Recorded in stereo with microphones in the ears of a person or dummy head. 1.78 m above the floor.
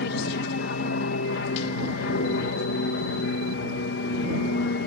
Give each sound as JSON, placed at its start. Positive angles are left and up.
{"t": 0.0, "sound": "an aircraft", "side_deg": 50}